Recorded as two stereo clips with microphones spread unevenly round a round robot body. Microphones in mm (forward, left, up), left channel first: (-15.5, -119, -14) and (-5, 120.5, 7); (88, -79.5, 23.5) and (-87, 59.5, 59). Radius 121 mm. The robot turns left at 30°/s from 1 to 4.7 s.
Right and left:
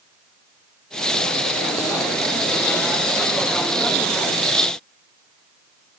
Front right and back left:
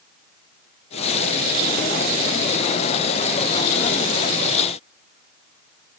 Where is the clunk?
No clunk in this recording.